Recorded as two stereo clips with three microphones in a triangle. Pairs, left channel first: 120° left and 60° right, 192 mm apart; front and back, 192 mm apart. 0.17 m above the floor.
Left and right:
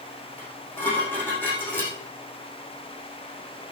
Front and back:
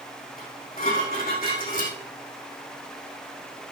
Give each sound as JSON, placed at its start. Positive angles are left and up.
{"t": 0.4, "sound": "dishes clattering", "azimuth_deg": 40, "distance_m": 5.5}